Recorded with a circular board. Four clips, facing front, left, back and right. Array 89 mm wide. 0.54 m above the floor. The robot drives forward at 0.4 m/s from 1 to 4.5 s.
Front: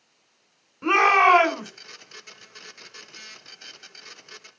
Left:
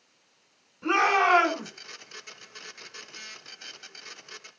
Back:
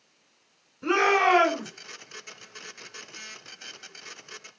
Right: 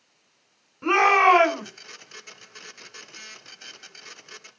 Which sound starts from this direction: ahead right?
A shout, at 0.8 s.